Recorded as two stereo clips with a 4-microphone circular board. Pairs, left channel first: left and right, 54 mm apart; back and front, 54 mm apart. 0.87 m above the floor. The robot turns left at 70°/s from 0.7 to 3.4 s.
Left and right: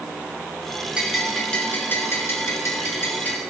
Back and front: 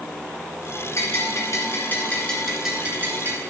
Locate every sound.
1.0 s a bell: 160° right, 1.8 m; by 3.4 s 30° left, 1.8 m